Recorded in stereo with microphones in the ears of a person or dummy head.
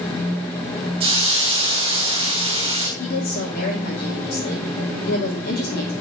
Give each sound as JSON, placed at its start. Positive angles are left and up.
{"t": 1.0, "sound": "a hiss", "side_deg": -30, "distance_m": 3.0}
{"t": 3.0, "sound": "a woman speaking", "side_deg": 50, "distance_m": 3.0}